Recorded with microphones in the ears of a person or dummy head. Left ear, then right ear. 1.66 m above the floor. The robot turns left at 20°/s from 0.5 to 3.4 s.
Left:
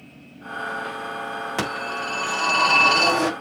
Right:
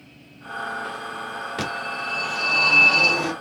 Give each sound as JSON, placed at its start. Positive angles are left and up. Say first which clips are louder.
{"t": 1.6, "sound": "a phone ringing", "louder": "left 1 dB", "azimuth_deg": 135, "distance_m": 2.5}